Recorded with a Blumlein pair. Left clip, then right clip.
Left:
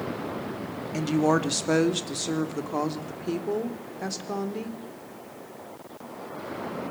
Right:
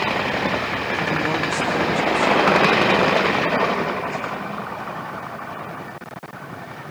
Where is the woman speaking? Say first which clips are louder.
Left 1 dB; 15° left, 2.5 m; by 4.8 s 35° left, 4 m.